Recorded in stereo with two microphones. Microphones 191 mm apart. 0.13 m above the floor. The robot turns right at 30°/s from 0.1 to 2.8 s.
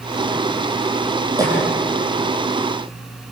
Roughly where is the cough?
Centre.